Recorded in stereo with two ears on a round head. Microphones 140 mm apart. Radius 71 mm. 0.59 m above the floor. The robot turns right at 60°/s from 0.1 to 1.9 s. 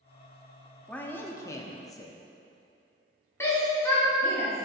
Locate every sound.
0.9 s a man speaking: 10° left (ahead or behind), 0.6 m; by 2.2 s 20° left (ahead or behind), 0.6 m
3.4 s a shout: 15° left (ahead or behind), 1.5 m